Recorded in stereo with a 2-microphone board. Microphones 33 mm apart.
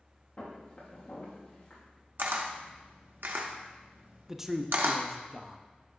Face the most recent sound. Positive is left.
turn(degrees=-10)  # may be behind; listen again after turning